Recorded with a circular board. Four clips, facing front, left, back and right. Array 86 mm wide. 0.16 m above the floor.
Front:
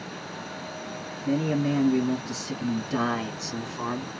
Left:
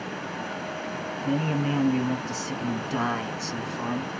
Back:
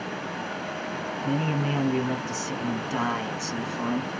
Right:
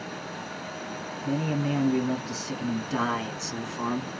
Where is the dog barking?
I don't hear a dog barking.